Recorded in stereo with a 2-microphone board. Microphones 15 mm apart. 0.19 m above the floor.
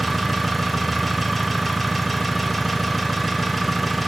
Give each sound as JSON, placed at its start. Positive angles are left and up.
{"t": 0.0, "sound": "an engine running", "side_deg": 5, "distance_m": 2.0}